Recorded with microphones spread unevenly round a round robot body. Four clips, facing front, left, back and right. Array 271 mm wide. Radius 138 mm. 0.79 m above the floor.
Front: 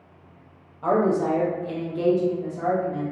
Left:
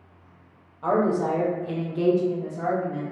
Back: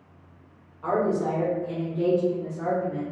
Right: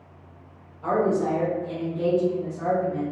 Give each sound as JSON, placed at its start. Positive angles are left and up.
{"t": 0.8, "sound": "a woman speaking", "azimuth_deg": 5, "distance_m": 1.0}